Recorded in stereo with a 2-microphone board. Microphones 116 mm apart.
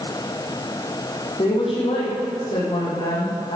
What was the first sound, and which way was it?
A woman speaking, 55° left (ahead or behind).